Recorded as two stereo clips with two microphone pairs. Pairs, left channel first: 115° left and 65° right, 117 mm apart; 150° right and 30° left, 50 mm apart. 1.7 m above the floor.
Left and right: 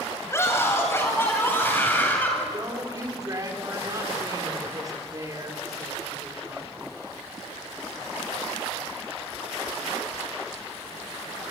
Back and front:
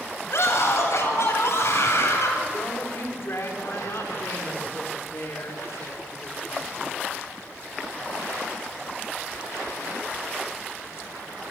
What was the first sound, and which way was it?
A scream, 175° right.